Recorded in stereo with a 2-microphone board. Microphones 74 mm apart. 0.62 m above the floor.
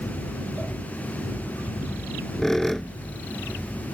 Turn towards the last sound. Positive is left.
turn(degrees=5)  # may be behind; listen again after turning